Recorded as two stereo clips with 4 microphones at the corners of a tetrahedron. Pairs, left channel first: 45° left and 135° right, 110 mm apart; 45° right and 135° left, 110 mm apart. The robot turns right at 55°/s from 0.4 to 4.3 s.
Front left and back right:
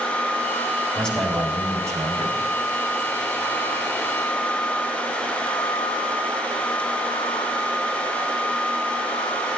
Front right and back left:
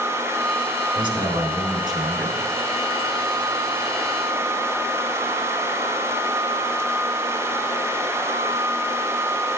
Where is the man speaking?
120° left, 1.5 m; by 2.4 s 160° right, 1.5 m.